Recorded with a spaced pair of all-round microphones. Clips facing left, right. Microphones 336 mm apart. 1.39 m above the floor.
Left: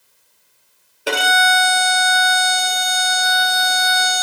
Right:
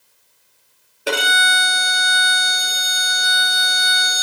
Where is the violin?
Centre (ahead or behind), 2 m.